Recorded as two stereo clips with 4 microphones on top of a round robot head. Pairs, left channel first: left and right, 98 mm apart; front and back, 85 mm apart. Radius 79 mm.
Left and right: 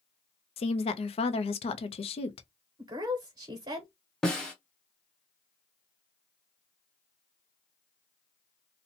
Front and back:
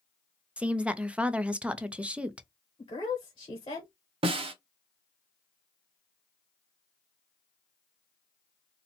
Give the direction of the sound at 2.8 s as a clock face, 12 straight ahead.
2 o'clock.